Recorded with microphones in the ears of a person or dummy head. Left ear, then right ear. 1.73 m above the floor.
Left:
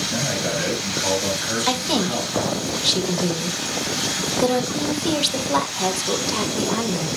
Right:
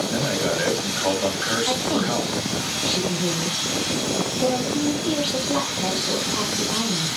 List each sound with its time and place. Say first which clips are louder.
0.1 s a man speaking: even; 30° right (ahead or behind), 3.5 m
1.7 s a woman speaking: left 1 dB; 70° left (ahead or behind), 2 m